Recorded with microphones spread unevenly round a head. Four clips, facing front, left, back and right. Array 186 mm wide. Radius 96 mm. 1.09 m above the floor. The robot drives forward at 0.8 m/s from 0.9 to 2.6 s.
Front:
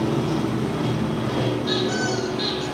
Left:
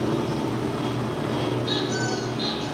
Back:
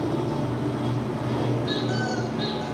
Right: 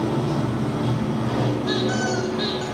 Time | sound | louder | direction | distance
0.0 | running water | right 2 dB, front 3 dB | 55° right | 3.5 m
1.7 | a squeak | right 3 dB, front 3 dB | 70° right | 3.5 m